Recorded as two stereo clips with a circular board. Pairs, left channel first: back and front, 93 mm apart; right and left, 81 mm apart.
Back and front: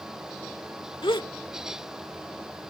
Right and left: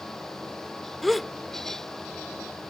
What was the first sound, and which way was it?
A gasp, straight behind.